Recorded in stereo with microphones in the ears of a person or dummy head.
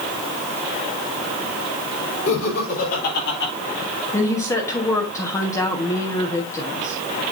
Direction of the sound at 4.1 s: 15° left (ahead or behind).